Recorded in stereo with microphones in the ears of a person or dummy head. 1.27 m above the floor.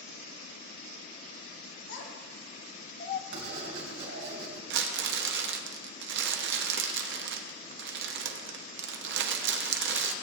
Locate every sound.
1.9 s a child speaking: 75° left (ahead or behind), 2.5 m; by 3.2 s 35° left (ahead or behind), 0.7 m
3.3 s writing: 70° right (ahead or behind), 3 m
4.7 s crumpling: 65° right (ahead or behind), 0.9 m